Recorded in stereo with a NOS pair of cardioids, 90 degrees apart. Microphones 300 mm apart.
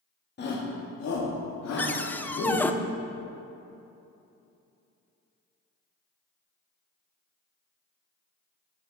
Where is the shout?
35° left, 1.9 m; by 2.7 s 70° left, 3.5 m.